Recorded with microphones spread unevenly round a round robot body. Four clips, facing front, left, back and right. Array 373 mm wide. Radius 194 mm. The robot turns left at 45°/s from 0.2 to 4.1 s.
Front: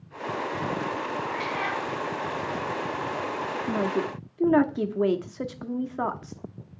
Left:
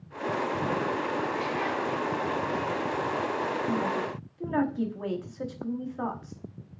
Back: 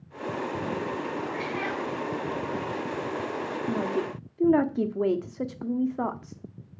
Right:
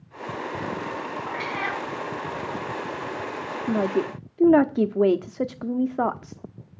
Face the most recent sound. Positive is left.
turn(degrees=-85)